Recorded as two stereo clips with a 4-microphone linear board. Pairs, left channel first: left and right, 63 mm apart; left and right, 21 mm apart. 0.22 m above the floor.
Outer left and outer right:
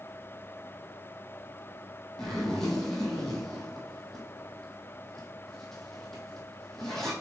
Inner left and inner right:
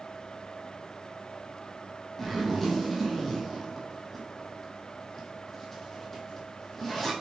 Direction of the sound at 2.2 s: 5° left (ahead or behind).